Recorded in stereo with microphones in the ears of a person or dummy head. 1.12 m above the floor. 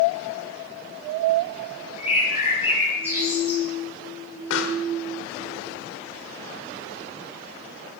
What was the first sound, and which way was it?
A bird, 10° right (ahead or behind).